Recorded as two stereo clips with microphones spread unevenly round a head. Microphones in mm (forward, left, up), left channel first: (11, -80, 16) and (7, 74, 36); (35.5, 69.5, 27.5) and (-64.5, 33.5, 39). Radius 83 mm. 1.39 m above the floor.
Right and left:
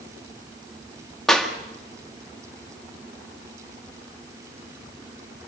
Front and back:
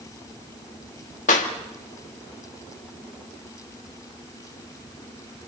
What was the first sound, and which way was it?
A clap, straight ahead.